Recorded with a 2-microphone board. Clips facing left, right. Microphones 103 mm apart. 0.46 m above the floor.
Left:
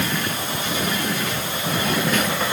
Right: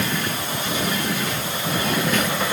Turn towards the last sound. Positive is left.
No sound to turn to.